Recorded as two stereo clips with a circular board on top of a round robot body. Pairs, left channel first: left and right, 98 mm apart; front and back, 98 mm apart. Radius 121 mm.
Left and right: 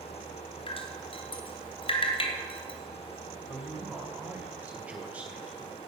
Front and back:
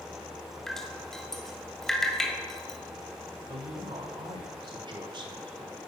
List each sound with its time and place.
0.7 s dripping: 85° left, 2.0 m
3.5 s a woman speaking: 165° right, 2.5 m